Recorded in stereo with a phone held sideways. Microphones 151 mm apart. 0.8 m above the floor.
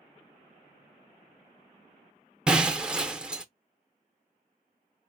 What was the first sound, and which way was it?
Breaking glass, 5° right (ahead or behind).